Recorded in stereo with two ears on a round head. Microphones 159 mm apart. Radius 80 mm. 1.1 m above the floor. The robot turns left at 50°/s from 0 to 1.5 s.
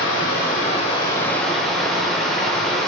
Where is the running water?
75° left, 3.5 m; by 2.9 s straight ahead, 3.5 m.